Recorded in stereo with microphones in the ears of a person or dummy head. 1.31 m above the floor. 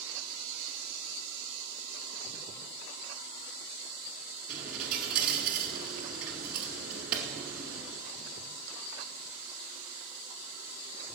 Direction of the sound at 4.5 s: 10° right (ahead or behind).